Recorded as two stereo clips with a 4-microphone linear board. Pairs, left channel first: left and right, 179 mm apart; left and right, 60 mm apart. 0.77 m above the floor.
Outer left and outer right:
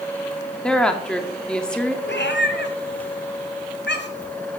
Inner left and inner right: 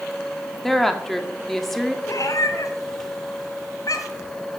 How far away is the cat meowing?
About 2.0 m.